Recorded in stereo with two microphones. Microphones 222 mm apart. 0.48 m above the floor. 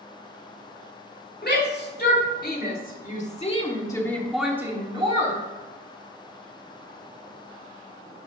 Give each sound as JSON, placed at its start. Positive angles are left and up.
{"t": 1.4, "sound": "a shout", "side_deg": 50, "distance_m": 2.5}